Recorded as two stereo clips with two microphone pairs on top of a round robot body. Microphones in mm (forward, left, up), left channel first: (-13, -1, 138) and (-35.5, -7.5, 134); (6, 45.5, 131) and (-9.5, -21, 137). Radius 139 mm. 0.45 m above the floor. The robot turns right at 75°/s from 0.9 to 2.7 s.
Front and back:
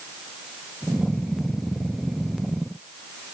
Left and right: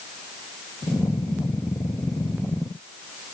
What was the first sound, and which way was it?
Only background noise.